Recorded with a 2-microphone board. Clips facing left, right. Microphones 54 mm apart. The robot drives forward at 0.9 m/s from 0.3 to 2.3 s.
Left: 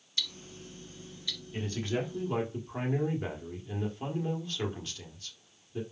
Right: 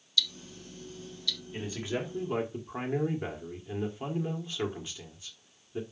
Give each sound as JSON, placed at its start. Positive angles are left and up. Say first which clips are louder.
{"t": 0.2, "sound": "ticking", "louder": "right 5 dB", "side_deg": 40, "distance_m": 1.1}
{"t": 1.5, "sound": "a man speaking", "louder": "left 2 dB", "side_deg": -10, "distance_m": 2.0}